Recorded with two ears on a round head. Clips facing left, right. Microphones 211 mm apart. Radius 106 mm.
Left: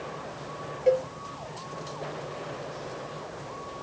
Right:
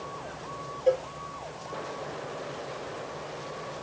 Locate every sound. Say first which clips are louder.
0.9 s a cowbell: left 2 dB; 35° left (ahead or behind), 6.5 m